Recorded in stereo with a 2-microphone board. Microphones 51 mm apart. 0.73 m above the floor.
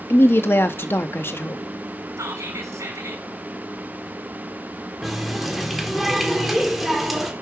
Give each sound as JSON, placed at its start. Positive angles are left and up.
{"t": 0.1, "sound": "a woman speaking", "side_deg": 45, "distance_m": 0.6}
{"t": 2.2, "sound": "whispering", "side_deg": -80, "distance_m": 3.0}
{"t": 5.0, "sound": "a running tap", "side_deg": -5, "distance_m": 1.4}